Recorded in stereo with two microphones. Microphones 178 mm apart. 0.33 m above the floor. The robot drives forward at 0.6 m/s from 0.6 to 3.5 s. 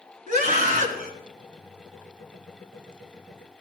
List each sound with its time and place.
0.3 s a scream: 50° right (ahead or behind), 5 m; by 1.1 s 55° right (ahead or behind), 4.5 m